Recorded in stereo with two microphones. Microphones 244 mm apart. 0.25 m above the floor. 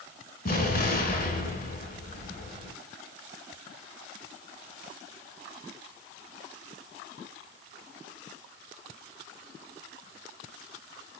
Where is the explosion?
40° left (ahead or behind), 0.7 m.